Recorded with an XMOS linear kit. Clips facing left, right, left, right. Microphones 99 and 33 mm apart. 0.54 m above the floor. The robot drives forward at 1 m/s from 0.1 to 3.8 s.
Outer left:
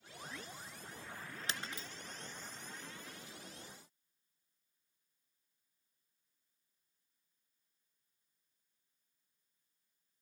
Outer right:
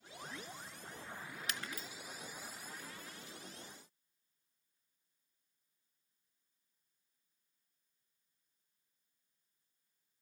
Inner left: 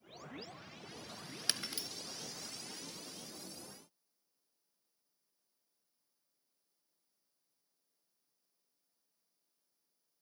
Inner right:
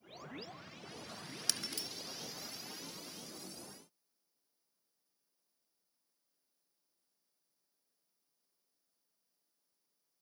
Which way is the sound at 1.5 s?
30° left (ahead or behind).